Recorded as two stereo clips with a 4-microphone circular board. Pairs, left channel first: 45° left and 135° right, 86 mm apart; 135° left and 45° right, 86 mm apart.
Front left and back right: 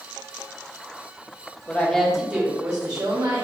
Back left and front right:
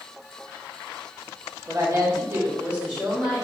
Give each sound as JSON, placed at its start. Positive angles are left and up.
{"t": 1.7, "sound": "a woman speaking", "azimuth_deg": -20, "distance_m": 1.3}